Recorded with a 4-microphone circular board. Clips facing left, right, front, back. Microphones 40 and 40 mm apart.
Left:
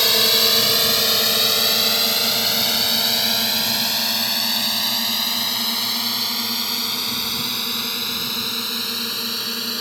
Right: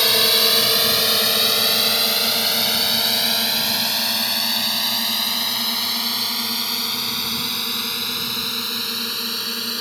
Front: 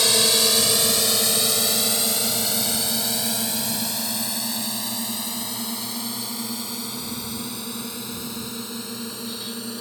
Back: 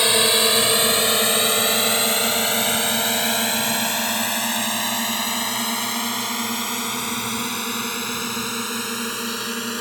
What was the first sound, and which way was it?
A drone, 170° right.